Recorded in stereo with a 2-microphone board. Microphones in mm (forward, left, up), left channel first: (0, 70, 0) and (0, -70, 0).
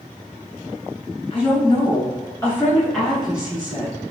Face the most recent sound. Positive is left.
turn(degrees=-20)  # may be behind; listen again after turning